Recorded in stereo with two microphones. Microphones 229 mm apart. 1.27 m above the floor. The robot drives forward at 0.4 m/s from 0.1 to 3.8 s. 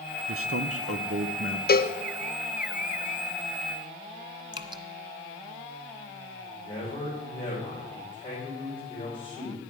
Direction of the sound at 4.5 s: 20° right (ahead or behind).